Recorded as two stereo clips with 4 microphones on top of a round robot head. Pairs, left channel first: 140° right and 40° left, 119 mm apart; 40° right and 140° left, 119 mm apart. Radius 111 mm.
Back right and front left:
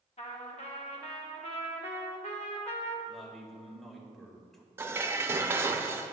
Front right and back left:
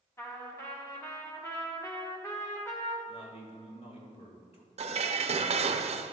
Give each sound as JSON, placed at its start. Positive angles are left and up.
{"t": 0.2, "sound": "a trumpet", "azimuth_deg": -110, "distance_m": 1.4}
{"t": 3.1, "sound": "a man speaking", "azimuth_deg": -50, "distance_m": 2.5}
{"t": 4.8, "sound": "dishes clattering", "azimuth_deg": 110, "distance_m": 0.6}